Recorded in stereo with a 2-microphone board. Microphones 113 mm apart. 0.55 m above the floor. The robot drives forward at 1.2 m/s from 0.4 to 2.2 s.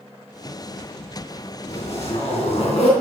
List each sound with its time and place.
1.7 s a zipper: 85° left, 2.5 m; by 2.9 s 70° left (ahead or behind), 2.5 m